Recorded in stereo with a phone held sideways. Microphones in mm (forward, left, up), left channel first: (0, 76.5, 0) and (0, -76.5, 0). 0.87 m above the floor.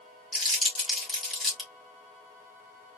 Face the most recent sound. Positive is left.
turn(degrees=0)  # may be behind; listen again after turning